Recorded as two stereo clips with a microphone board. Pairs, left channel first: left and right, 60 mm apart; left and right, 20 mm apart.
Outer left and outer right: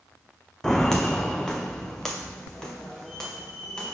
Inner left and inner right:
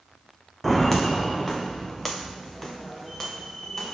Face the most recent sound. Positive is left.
turn(degrees=10)  # may be behind; listen again after turning